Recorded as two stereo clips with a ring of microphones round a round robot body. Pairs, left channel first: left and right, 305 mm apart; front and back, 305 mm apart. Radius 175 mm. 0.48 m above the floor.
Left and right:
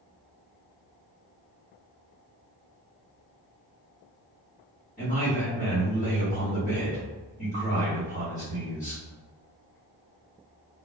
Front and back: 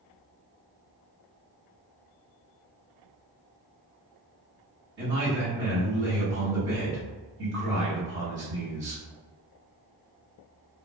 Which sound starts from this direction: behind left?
A man speaking, at 5.0 s.